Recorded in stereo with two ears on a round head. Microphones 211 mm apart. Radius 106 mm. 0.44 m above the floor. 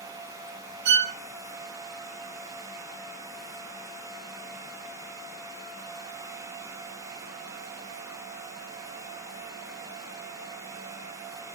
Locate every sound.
0.8 s a violin: 50° right (ahead or behind), 0.6 m